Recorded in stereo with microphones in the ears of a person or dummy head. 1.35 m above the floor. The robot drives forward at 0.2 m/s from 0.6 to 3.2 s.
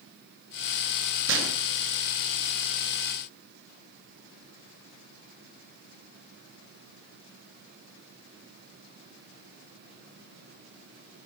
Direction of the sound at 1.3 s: 60° right (ahead or behind).